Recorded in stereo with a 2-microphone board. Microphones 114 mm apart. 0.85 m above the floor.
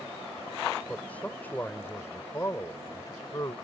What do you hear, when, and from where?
0.9 s a man speaking: 10° left (ahead or behind); by 3.5 s 35° left (ahead or behind)